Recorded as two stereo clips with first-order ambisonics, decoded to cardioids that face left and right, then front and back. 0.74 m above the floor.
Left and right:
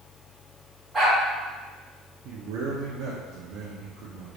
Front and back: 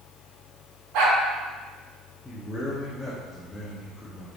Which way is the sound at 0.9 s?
165° right.